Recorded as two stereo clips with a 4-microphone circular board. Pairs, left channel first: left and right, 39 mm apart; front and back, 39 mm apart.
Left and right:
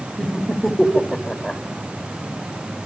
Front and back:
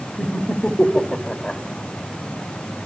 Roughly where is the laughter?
Ahead left.